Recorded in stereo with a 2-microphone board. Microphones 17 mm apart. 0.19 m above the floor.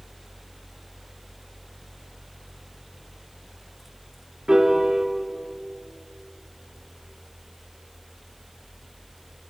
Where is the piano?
55° right (ahead or behind), 2.5 m.